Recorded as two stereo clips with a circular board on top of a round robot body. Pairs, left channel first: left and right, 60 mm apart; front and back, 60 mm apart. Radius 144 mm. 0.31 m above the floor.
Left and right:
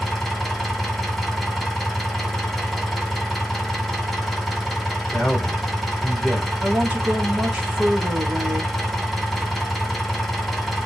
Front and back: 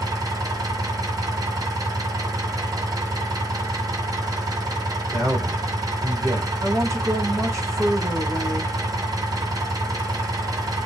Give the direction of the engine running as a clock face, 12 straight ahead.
6 o'clock.